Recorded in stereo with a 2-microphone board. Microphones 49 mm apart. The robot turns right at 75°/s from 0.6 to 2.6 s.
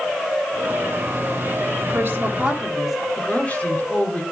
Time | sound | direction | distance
1.8 | a woman speaking | 65° right | 1.8 m
3.2 | a woman speaking | 25° left (ahead or behind) | 3 m